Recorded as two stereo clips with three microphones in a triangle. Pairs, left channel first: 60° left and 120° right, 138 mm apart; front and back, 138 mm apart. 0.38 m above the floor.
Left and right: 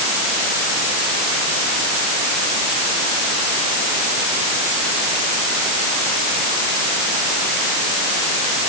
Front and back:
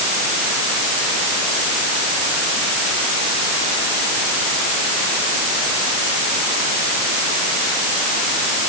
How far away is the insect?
No insect in this recording.